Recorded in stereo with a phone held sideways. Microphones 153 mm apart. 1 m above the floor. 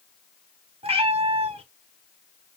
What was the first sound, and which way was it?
A cat meowing, 40° right (ahead or behind).